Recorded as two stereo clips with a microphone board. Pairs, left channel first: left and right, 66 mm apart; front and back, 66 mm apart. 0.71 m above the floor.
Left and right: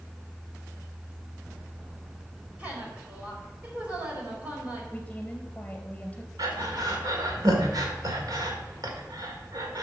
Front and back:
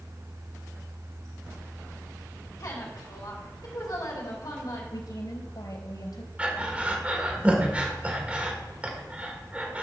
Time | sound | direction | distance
2.6 | a woman speaking | 20° right | 4 m
4.9 | a woman speaking | 20° left | 3 m
6.4 | breathing | 105° right | 1.9 m